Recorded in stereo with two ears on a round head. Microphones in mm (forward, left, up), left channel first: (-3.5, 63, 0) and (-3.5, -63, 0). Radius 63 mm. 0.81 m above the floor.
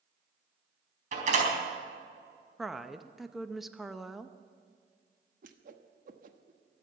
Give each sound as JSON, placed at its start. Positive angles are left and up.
{"t": 1.1, "sound": "a door slam", "side_deg": -55, "distance_m": 4.5}
{"t": 2.6, "sound": "a woman speaking", "side_deg": 0, "distance_m": 0.6}
{"t": 5.4, "sound": "a whoosh", "side_deg": -65, "distance_m": 1.1}